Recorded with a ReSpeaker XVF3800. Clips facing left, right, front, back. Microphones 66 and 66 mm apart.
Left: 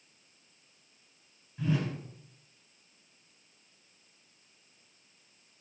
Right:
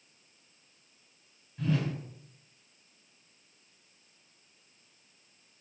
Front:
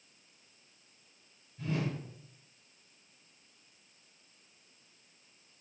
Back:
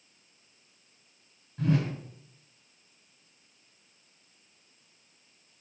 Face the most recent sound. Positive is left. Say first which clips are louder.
# even, back 7 dB
turn(degrees=175)